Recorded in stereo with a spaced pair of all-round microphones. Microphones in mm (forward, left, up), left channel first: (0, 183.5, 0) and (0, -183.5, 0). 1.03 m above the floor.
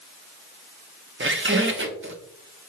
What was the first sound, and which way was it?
A squeak, 35° right (ahead or behind).